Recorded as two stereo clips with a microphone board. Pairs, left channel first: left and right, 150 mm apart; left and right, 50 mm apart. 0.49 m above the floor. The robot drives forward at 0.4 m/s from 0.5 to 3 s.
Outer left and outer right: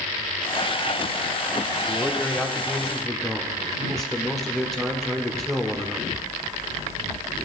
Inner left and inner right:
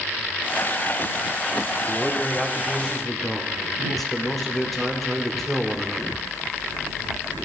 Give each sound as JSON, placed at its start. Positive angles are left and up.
{"t": 1.9, "sound": "a man speaking", "side_deg": 5, "distance_m": 0.8}